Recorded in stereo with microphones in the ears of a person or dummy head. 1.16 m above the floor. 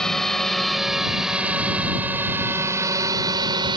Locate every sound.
0.0 s a drone: 5° left (ahead or behind); by 3.8 s 25° right (ahead or behind)